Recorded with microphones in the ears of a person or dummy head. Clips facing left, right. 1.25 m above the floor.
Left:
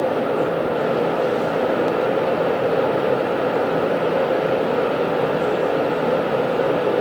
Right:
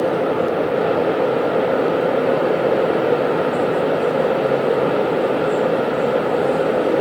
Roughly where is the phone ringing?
I don't hear a phone ringing.